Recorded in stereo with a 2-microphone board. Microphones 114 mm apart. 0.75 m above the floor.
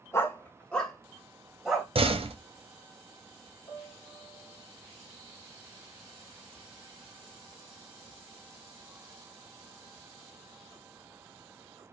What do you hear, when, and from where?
0.1 s a dog barking: 25° left (ahead or behind), 0.7 m; by 1.9 s 5° right (ahead or behind), 1.4 m
1.9 s a door slam: 55° right (ahead or behind), 0.7 m
3.7 s a piano: 40° left (ahead or behind), 3 m